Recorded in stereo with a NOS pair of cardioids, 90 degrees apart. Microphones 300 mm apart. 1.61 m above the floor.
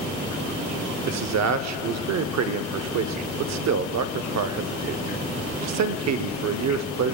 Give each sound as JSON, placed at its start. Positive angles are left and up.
{"t": 1.1, "sound": "a man speaking", "azimuth_deg": -65, "distance_m": 0.6}